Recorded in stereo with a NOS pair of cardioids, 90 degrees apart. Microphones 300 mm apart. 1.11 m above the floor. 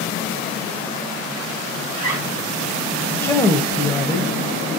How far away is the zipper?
About 1.9 m.